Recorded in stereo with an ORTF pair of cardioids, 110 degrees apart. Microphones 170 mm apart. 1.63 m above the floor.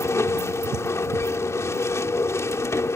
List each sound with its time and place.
0.0 s a machine running: 15° left